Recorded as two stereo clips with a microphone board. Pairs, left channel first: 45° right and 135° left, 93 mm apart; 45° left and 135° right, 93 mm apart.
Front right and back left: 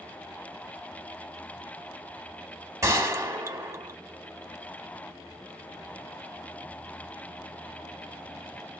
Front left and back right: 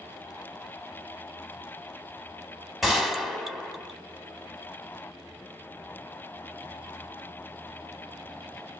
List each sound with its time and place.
2.8 s a gunshot: 145° left, 0.8 m